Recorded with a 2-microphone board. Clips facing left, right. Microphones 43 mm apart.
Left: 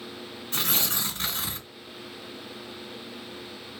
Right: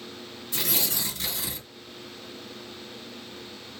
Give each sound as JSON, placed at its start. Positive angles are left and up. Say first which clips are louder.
{"t": 0.5, "sound": "tearing paper", "louder": "left 1 dB", "side_deg": 40, "distance_m": 1.8}